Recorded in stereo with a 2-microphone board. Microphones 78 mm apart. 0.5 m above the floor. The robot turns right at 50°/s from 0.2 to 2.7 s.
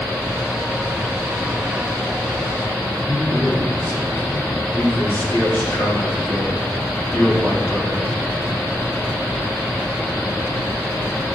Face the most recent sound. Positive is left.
turn(degrees=25)  # may be behind; listen again after turning